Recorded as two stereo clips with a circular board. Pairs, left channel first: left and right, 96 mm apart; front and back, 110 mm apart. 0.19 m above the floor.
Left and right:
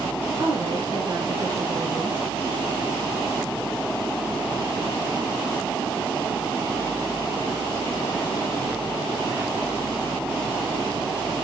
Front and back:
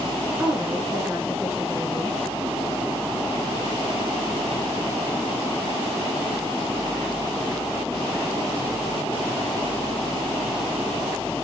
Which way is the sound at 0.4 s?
110° right.